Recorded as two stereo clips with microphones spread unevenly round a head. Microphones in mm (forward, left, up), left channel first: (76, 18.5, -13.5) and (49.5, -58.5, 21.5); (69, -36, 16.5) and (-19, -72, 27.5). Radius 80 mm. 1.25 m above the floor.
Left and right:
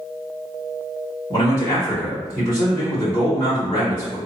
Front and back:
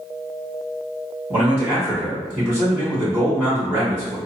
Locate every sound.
1.3 s a man speaking: 120° left, 1.4 m